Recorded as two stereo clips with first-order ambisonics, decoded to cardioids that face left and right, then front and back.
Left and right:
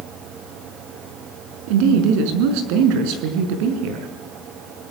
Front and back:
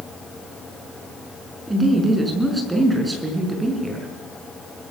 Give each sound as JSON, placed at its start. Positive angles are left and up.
{"t": 1.7, "sound": "a woman speaking", "azimuth_deg": -100, "distance_m": 5.5}